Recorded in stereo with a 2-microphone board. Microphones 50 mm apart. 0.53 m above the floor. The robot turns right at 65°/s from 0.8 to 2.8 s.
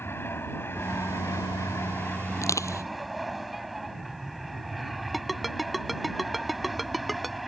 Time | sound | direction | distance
0.0 | an aircraft | 55° left | ?
2.4 | crushing | 80° left | ?
5.1 | a ringtone | centre (ahead or behind) | ?